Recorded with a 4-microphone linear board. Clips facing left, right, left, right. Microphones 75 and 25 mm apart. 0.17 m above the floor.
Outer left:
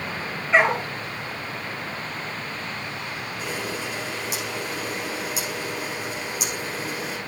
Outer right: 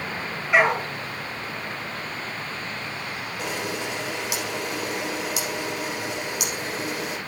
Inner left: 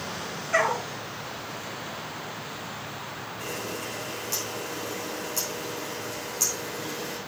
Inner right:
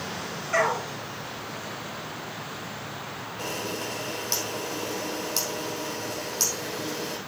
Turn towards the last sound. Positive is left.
turn(degrees=-80)